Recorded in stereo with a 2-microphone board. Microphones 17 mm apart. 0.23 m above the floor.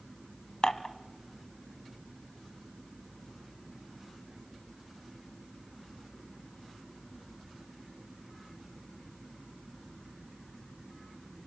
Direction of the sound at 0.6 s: 45° left (ahead or behind).